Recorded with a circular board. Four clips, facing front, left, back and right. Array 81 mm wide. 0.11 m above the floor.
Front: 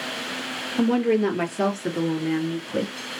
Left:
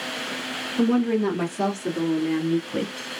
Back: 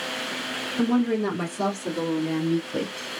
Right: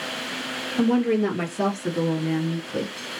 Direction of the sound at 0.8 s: 30° right.